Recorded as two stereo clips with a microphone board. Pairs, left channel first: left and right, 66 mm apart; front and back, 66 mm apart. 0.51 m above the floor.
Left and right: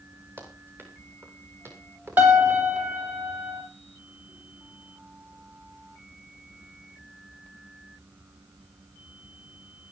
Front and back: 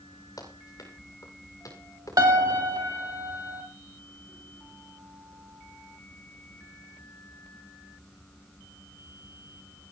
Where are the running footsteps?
35° right, 8 m; by 2.6 s 40° right, 10.5 m.